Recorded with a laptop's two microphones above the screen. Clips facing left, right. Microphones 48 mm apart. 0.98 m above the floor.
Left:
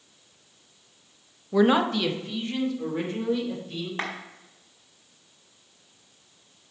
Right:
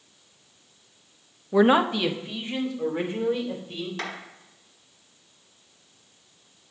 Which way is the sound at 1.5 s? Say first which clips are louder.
Right 2 dB; 15° right (ahead or behind).